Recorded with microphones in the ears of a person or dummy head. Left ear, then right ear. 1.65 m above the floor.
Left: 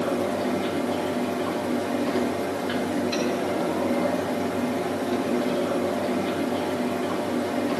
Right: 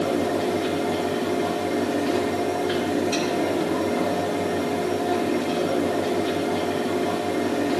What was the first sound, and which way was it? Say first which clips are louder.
A fan: right 2 dB; centre (ahead or behind).